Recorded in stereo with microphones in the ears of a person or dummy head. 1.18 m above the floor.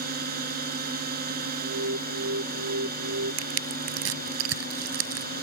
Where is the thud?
No thud in this recording.